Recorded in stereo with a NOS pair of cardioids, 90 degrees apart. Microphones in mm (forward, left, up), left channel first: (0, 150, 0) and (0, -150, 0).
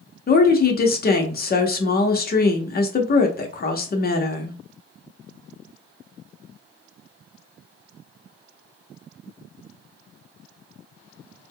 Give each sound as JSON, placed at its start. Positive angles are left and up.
{"t": 0.3, "sound": "a woman speaking", "azimuth_deg": 35, "distance_m": 1.0}